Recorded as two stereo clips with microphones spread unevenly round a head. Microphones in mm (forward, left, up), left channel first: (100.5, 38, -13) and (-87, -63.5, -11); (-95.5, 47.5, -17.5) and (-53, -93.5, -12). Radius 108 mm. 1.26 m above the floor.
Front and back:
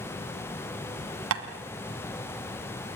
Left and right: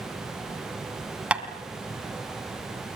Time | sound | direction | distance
1.3 | tapping | 155° right | 2 m